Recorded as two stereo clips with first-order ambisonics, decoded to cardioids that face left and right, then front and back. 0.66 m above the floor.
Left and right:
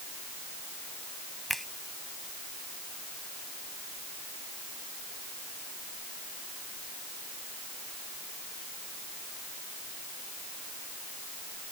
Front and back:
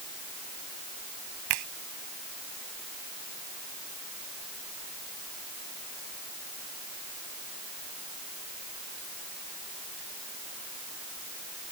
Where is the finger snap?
Straight behind.